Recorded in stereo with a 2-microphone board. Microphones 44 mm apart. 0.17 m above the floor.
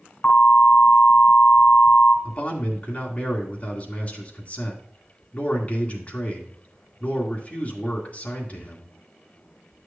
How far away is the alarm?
About 2.5 m.